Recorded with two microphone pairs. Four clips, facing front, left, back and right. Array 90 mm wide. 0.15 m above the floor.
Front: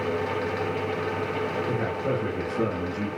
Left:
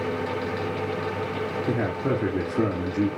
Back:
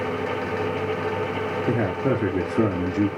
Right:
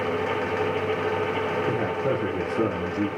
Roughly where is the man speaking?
Behind.